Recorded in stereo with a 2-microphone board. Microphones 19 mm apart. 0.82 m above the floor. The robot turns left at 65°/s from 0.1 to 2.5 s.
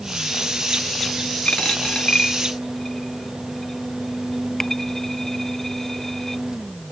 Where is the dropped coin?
85° left; by 6.4 s 25° left (ahead or behind).